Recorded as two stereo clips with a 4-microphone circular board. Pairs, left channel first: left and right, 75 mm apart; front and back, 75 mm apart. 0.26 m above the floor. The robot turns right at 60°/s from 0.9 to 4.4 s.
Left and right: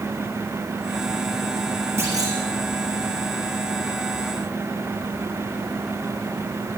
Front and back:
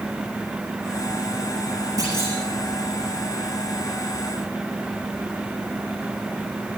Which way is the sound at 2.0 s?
140° right.